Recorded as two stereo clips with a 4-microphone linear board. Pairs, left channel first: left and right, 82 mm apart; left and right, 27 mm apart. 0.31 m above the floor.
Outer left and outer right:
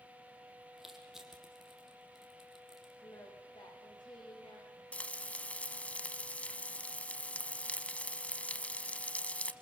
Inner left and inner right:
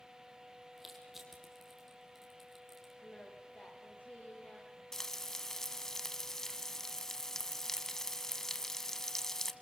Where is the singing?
60° left (ahead or behind), 8.5 m.